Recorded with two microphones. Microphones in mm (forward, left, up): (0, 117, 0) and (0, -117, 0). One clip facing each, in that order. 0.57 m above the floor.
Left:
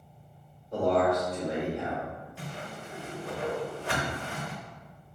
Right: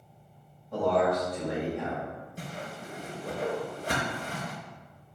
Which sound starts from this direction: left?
A man speaking, at 0.7 s.